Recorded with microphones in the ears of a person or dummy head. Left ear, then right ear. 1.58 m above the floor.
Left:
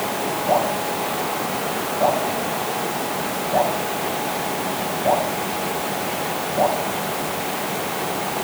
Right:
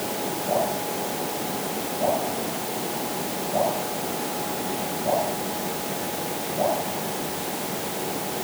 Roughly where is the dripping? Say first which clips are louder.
Left 5 dB; left.